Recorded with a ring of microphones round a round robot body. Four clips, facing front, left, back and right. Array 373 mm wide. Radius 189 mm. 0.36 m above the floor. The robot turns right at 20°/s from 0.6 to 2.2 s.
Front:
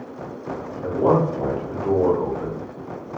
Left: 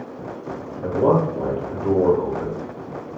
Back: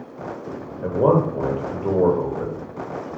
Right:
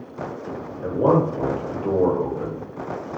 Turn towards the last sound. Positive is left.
turn(degrees=-160)